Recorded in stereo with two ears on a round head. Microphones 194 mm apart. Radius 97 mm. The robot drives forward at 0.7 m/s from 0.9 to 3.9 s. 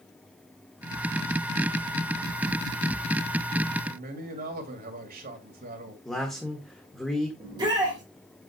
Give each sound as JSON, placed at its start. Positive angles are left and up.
{"t": 3.8, "sound": "a man speaking", "side_deg": -45, "distance_m": 2.0}
{"t": 6.0, "sound": "a man speaking", "side_deg": 0, "distance_m": 1.5}
{"t": 7.4, "sound": "a shout", "side_deg": -20, "distance_m": 2.5}